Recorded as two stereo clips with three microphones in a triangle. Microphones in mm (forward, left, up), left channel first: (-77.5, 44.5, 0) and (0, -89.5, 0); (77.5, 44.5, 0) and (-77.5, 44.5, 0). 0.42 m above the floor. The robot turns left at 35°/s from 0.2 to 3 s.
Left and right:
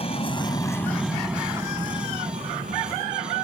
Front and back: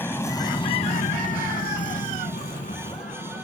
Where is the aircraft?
75° left; by 3.5 s 45° right.